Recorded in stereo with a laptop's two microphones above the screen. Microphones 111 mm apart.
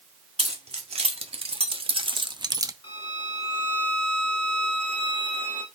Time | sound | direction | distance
0.4 | keys jangling | 75° right (ahead or behind) | 1.6 m
2.8 | a violin | 50° left (ahead or behind) | 1.2 m